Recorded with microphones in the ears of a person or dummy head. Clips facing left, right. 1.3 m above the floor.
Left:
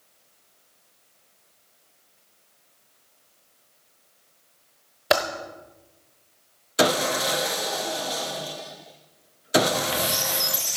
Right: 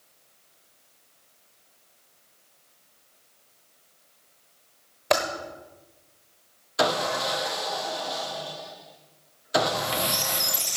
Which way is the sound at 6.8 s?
30° left (ahead or behind).